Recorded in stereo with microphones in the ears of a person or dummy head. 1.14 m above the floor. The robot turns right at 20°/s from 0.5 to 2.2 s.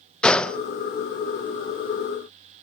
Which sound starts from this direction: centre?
A gunshot, at 0.2 s.